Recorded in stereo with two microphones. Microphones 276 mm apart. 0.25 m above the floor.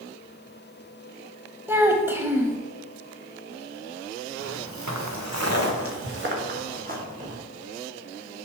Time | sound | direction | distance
1.7 | a child speaking | 10° right (ahead or behind) | 0.6 m
4.4 | footsteps | 70° right (ahead or behind) | 1.5 m